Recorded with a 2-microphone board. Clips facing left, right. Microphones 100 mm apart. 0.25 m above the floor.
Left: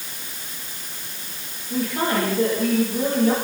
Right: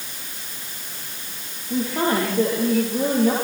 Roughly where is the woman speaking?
Right.